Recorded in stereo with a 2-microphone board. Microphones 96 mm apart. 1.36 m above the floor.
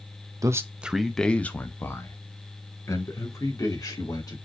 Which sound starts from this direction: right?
A man speaking, at 0.4 s.